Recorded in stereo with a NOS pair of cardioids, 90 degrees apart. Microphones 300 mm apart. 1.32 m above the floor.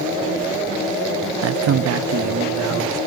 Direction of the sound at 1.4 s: 55° right.